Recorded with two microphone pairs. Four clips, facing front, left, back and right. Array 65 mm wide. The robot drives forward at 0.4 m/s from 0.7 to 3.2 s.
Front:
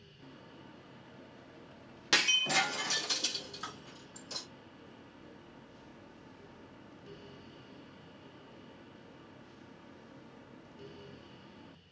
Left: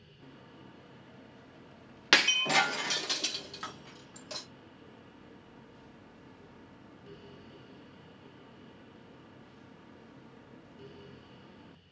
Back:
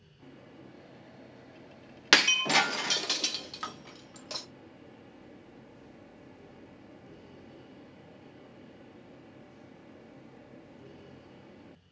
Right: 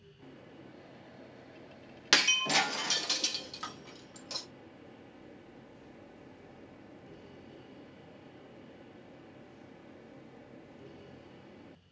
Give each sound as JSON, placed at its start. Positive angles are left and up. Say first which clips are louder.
{"t": 2.1, "sound": "breaking glass", "louder": "left 3 dB, back 6 dB", "azimuth_deg": 140, "distance_m": 0.5}